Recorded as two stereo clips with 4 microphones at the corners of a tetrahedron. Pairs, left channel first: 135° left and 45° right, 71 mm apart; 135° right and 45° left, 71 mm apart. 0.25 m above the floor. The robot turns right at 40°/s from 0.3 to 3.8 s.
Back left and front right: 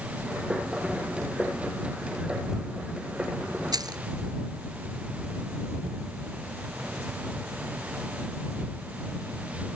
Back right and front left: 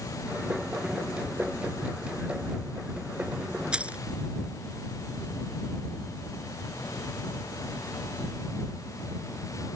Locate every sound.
3.7 s keys jangling: 30° right; by 4.0 s 25° right